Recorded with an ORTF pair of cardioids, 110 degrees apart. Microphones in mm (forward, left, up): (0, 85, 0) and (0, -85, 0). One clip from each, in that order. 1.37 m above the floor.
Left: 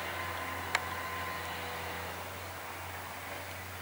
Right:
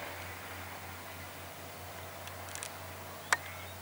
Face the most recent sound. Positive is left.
No sound to turn to.